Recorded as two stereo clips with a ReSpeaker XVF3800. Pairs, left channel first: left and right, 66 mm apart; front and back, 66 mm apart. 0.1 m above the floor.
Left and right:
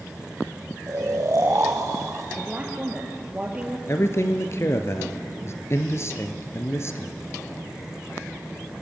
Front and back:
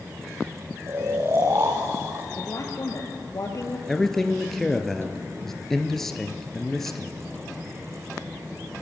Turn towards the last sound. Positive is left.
turn(degrees=85)